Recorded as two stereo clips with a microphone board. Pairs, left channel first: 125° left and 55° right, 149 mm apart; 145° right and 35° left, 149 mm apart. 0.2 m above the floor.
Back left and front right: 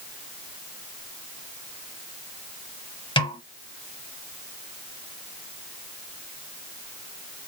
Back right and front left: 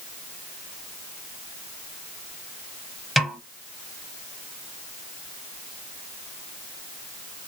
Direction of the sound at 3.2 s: 120° left.